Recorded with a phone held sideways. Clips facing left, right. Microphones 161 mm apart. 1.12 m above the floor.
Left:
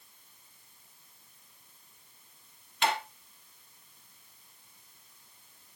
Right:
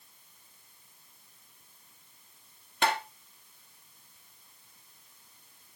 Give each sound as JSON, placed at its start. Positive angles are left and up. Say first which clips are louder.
{"t": 2.8, "sound": "tapping", "louder": "right 1 dB", "side_deg": -50, "distance_m": 2.0}